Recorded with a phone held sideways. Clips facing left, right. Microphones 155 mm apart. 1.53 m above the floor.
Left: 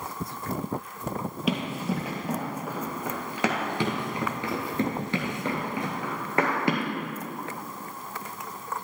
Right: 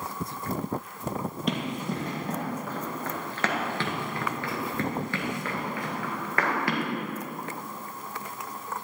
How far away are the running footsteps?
About 2 m.